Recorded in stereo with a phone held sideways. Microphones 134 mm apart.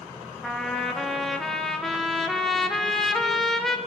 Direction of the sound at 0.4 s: 5° left (ahead or behind).